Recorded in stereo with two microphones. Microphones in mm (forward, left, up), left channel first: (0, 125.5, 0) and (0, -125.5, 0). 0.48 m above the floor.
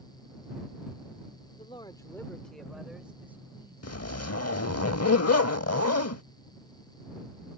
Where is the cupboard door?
I don't hear a cupboard door.